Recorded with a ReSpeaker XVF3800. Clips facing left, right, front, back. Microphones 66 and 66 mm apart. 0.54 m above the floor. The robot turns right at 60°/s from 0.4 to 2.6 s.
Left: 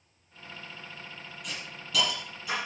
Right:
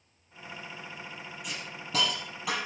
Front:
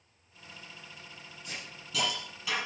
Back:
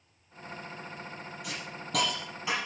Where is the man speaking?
No man speaking in this recording.